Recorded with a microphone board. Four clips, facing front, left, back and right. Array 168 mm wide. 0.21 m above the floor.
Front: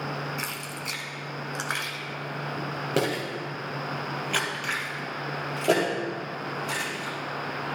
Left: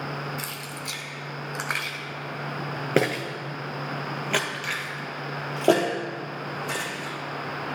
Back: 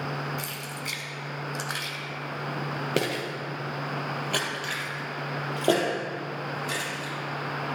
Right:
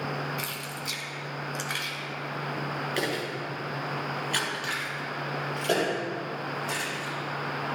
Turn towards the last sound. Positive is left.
turn(degrees=115)